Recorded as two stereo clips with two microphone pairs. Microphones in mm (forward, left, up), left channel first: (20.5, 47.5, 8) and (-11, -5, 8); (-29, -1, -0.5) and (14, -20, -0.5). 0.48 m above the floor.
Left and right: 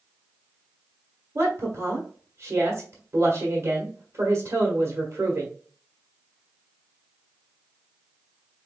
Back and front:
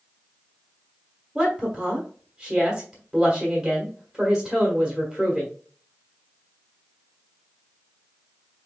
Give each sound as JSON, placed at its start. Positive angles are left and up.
{"t": 1.4, "sound": "a woman speaking", "azimuth_deg": -105, "distance_m": 1.5}